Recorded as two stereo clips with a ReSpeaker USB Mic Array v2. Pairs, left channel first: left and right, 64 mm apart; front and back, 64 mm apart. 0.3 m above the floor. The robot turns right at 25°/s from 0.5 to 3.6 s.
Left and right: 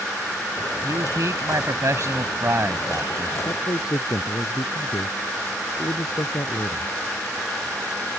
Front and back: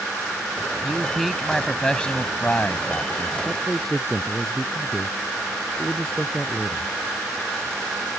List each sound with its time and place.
0.8 s a man speaking: 100° right; by 3.4 s 35° right
3.5 s a man speaking: 80° left; by 7.0 s 85° left